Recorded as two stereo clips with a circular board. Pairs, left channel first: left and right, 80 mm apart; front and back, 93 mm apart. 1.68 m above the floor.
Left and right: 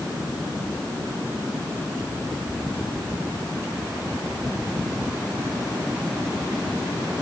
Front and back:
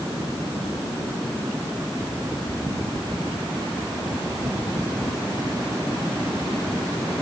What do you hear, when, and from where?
Only background noise.